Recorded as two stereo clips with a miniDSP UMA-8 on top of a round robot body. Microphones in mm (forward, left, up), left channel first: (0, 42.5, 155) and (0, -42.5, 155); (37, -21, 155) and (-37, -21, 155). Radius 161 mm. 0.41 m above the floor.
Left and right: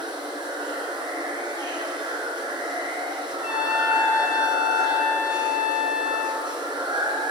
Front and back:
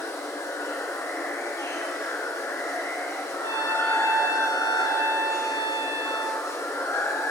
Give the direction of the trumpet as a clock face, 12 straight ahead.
6 o'clock.